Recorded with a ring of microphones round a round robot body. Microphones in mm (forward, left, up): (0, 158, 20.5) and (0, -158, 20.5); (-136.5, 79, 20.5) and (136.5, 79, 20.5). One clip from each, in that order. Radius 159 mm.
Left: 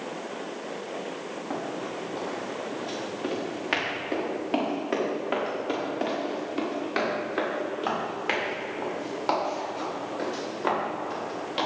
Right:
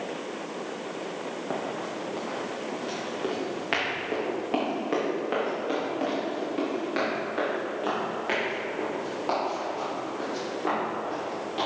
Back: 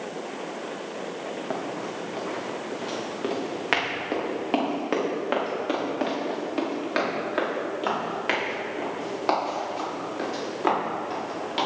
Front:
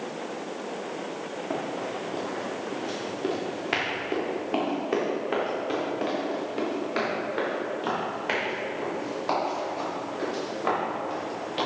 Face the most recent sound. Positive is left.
turn(degrees=150)